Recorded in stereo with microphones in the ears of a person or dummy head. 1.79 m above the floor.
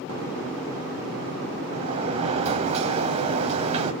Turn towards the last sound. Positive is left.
turn(degrees=-35)  # may be behind; listen again after turning